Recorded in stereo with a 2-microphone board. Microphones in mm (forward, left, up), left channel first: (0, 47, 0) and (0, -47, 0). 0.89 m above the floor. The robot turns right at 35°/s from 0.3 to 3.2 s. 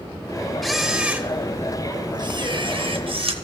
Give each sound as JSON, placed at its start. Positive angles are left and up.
{"t": 0.6, "sound": "a camera shutter", "azimuth_deg": 180, "distance_m": 0.8}